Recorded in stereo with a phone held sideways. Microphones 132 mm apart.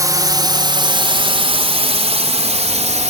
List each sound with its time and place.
0.0 s a drone: 25° right (ahead or behind); by 3.1 s 60° right (ahead or behind)